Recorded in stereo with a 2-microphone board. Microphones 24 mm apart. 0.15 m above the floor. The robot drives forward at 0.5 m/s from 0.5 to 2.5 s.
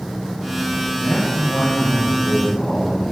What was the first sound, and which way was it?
A man speaking, 75° left (ahead or behind).